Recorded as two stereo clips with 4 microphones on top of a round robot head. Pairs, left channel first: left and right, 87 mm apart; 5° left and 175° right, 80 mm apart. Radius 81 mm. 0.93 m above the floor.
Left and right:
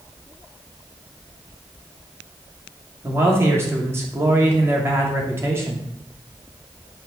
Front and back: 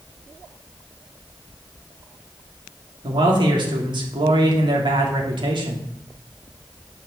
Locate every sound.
3.0 s a man speaking: 155° right, 2.5 m